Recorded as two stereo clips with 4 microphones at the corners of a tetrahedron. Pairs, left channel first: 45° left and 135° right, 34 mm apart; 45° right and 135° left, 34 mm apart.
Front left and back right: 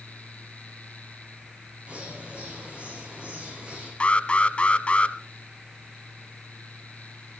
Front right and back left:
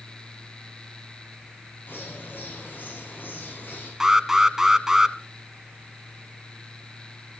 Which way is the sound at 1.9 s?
75° right.